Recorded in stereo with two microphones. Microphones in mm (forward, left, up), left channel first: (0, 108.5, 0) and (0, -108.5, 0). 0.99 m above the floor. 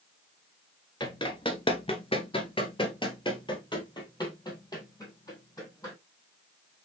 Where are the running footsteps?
20° left (ahead or behind), 1.0 m; by 6.0 s 15° left (ahead or behind), 3 m.